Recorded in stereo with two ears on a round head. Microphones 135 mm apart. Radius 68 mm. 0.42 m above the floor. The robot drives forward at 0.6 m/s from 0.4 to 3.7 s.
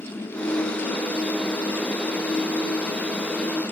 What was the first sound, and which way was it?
Only background noise.